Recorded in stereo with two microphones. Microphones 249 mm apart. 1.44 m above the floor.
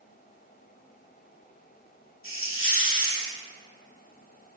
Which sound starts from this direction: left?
A hiss, at 2.2 s.